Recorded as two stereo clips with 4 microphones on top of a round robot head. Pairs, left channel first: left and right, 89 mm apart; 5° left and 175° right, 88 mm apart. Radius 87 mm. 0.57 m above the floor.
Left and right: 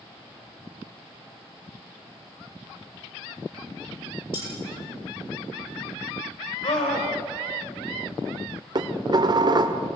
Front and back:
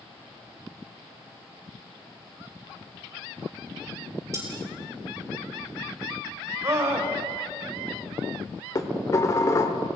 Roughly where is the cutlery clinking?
Behind left.